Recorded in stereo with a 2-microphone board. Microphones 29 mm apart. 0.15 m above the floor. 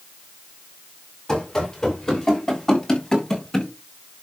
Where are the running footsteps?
25° left (ahead or behind), 7 m; by 3.7 s 15° left (ahead or behind), 6.5 m.